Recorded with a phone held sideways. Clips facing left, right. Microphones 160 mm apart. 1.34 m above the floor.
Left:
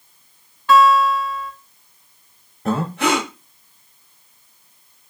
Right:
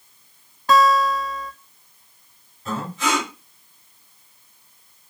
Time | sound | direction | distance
0.7 | a guitar | 35° right (ahead or behind) | 0.6 m
2.6 | breathing | 60° left (ahead or behind) | 0.7 m